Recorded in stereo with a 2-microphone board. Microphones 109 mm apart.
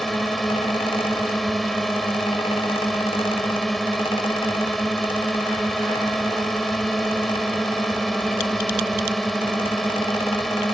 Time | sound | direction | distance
0.0 | a drone | centre (ahead or behind) | ?